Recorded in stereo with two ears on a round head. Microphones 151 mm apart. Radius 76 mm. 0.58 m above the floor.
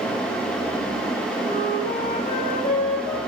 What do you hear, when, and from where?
1.4 s a flute: 35° left (ahead or behind), 8.5 m